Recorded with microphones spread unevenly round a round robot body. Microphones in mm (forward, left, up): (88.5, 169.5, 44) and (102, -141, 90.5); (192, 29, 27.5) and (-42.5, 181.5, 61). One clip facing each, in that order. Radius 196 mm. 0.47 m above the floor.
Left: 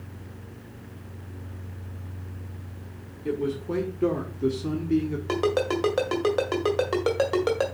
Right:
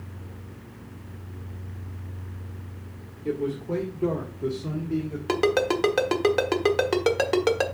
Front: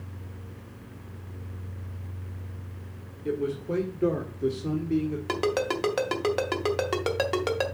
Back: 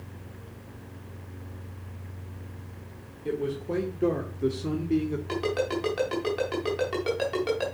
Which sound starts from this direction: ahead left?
A man speaking, at 3.2 s.